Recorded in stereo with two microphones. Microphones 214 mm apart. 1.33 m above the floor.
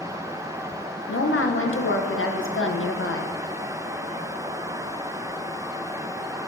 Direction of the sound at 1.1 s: 75° left (ahead or behind).